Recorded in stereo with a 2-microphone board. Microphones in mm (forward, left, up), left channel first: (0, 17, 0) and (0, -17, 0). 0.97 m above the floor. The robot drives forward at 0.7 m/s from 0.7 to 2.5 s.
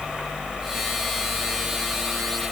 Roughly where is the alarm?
No alarm in this recording.